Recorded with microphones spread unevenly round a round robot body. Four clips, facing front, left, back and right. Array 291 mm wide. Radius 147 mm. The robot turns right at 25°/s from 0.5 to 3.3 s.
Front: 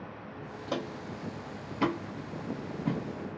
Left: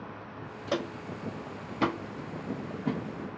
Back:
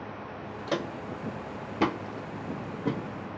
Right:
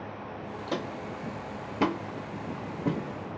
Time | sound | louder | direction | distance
0.7 | footsteps | left 2 dB, back 4 dB | 125° left | 0.9 m